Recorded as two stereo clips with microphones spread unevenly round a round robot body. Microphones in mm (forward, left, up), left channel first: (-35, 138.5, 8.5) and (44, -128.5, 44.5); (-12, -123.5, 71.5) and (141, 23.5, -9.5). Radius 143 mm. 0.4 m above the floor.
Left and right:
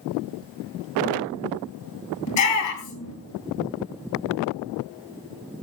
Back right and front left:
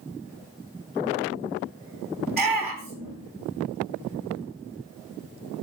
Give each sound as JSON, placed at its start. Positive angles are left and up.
{"t": 2.3, "sound": "a shout", "azimuth_deg": 135, "distance_m": 7.0}